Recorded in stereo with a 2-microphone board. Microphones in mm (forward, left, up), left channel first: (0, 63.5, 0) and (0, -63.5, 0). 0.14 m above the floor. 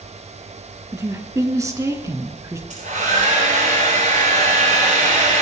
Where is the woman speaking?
25° right (ahead or behind), 1.6 m.